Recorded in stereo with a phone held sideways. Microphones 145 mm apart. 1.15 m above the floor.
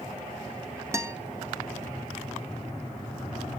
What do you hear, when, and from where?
0.9 s a guitar: 20° right (ahead or behind), 0.7 m